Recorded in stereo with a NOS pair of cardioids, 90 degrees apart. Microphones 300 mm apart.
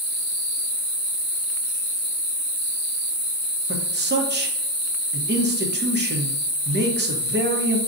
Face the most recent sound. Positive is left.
turn(degrees=-35)